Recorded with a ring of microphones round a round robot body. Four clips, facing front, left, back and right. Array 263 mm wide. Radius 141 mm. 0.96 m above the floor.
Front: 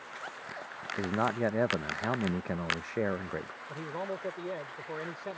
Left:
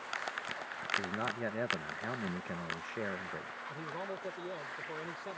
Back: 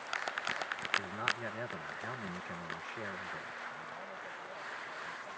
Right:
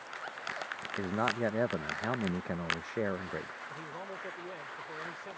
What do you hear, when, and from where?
1.0 s a man speaking: 25° right
3.7 s a man speaking: 10° left